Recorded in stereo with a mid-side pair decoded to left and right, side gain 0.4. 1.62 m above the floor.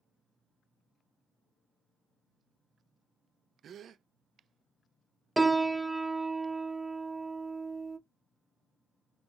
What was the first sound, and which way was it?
A gasp, 60° right.